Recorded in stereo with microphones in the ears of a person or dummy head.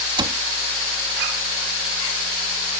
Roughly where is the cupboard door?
Centre.